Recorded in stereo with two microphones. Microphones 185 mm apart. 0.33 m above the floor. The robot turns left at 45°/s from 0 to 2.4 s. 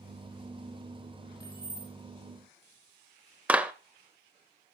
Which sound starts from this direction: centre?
A clap, at 3.5 s.